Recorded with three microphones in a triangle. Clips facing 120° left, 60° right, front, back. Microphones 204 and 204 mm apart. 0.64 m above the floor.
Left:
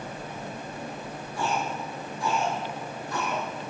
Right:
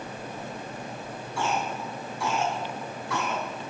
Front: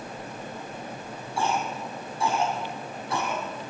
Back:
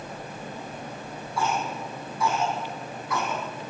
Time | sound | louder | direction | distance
1.4 | a cough | even, even | 60° right | 6.5 m